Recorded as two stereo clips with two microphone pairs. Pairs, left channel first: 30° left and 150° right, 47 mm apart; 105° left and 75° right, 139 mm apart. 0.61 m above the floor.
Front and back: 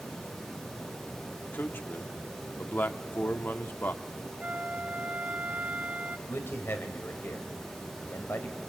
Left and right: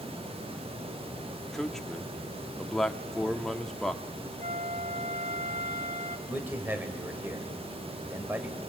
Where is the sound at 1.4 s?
20° left, 1.1 m.